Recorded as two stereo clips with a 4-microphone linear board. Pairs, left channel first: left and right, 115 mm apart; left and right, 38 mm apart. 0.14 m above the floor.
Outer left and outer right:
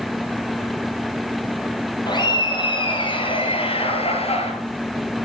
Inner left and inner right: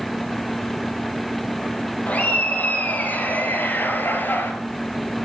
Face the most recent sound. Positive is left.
turn(degrees=60)  # may be behind; listen again after turning